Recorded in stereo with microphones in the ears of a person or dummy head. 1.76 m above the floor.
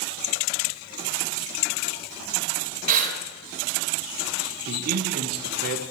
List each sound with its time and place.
2.9 s breathing: 45° right (ahead or behind), 2.5 m
4.7 s a man speaking: 50° right (ahead or behind), 1.3 m